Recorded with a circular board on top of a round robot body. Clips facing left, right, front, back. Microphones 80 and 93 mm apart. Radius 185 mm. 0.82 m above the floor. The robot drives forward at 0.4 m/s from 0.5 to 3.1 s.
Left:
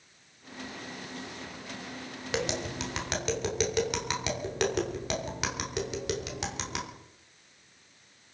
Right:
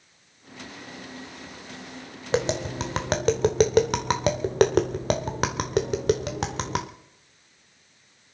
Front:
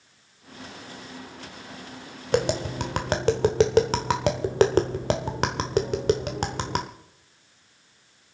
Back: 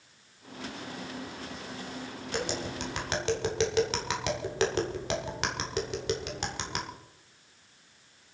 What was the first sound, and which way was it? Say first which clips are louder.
Tapping: right 7 dB, front 10 dB; 30° right.